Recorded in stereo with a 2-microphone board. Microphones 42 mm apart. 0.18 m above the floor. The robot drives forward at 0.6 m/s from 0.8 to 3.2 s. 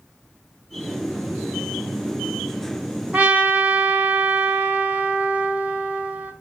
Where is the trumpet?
30° right (ahead or behind), 0.7 m; by 6.3 s 35° right (ahead or behind), 0.7 m.